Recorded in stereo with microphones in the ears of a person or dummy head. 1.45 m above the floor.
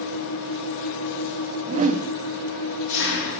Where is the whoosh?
35° right (ahead or behind), 0.7 m.